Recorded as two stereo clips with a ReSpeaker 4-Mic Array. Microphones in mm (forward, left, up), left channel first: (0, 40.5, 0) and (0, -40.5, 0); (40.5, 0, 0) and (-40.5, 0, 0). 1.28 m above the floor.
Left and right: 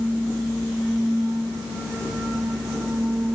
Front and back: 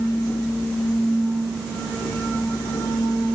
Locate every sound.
Only background noise.